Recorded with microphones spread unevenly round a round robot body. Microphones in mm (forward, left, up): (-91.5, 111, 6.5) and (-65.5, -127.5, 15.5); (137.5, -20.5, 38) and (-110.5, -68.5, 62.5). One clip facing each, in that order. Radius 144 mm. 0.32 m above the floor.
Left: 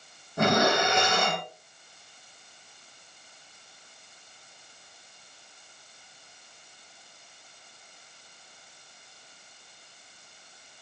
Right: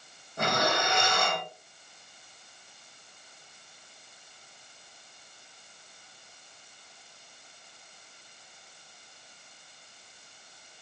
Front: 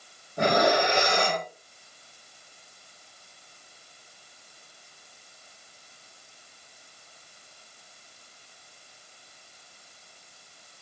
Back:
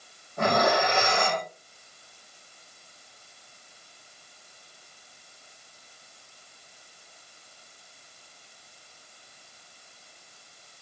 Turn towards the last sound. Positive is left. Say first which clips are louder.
# left 6 dB, front 1 dB
turn(degrees=85)